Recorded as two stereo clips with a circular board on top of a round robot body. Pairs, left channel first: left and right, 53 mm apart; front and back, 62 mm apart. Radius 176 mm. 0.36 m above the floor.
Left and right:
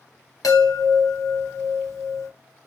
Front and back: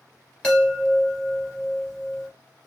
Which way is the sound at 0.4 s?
75° left.